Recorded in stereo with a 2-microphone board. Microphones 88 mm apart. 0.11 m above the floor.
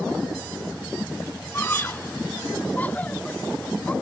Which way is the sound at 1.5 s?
25° left (ahead or behind).